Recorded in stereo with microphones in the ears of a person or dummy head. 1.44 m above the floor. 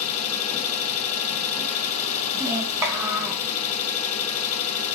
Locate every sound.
0.0 s an engine running: 40° left (ahead or behind), 0.8 m
2.3 s a child speaking: 10° right (ahead or behind), 1.0 m